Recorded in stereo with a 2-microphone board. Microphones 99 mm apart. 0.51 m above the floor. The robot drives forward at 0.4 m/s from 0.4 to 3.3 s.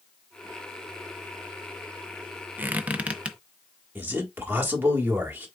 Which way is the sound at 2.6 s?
20° right (ahead or behind).